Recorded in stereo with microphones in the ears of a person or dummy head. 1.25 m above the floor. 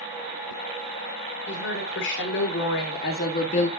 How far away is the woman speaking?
About 5 m.